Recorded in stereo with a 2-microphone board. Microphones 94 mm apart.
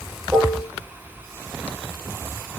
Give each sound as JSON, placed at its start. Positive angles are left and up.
{"t": 0.3, "sound": "dishes clattering", "side_deg": -5, "distance_m": 3.0}